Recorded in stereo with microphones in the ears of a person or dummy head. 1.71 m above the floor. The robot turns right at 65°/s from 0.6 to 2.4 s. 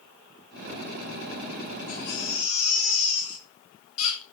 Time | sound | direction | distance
1.9 | a baby crying | 45° left | 5 m